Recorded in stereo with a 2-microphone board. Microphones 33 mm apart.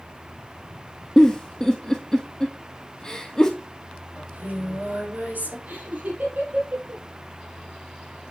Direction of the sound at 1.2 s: 20° left (ahead or behind).